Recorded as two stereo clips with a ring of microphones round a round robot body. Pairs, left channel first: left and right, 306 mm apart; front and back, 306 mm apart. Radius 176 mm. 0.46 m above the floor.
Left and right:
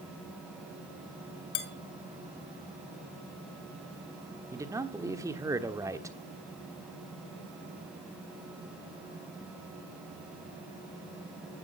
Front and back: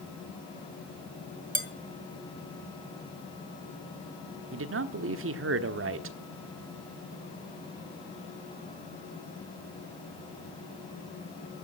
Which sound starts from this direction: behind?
A man speaking, at 4.5 s.